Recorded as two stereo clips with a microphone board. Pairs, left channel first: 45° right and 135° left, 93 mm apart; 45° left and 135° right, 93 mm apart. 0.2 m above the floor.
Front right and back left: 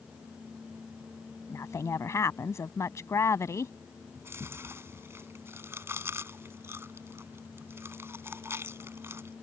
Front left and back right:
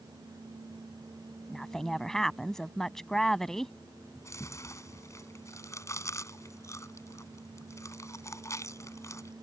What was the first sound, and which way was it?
A woman speaking, 35° right.